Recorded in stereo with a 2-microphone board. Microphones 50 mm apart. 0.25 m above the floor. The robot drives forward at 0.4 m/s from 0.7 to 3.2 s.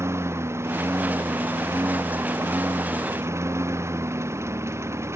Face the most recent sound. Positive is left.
turn(degrees=-65)  # may be behind; listen again after turning